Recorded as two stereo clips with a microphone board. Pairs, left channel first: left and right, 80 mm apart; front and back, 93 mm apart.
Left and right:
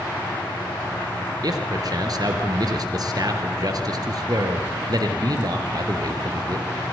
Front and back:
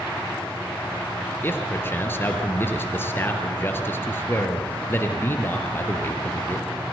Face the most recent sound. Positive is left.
turn(degrees=-65)